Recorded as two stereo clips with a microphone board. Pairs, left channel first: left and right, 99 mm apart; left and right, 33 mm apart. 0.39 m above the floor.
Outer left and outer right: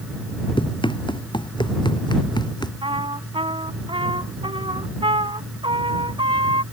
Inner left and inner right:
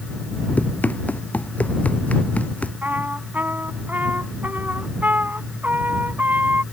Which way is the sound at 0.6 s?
50° left (ahead or behind).